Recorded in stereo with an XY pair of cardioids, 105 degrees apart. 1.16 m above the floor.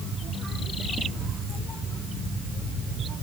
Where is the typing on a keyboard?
I don't hear typing on a keyboard.